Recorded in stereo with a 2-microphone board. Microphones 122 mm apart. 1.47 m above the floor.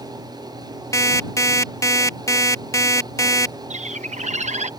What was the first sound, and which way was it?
An alarm clock, 25° left (ahead or behind).